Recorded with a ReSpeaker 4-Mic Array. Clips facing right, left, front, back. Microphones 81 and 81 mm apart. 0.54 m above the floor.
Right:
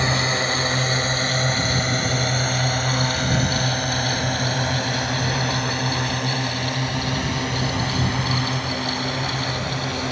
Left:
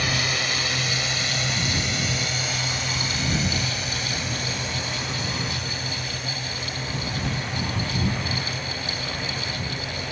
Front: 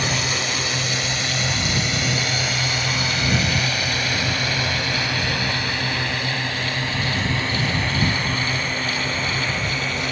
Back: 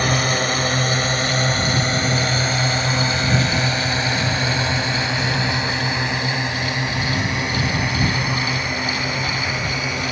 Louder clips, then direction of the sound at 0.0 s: Right 5 dB, back 5 dB; 145° right.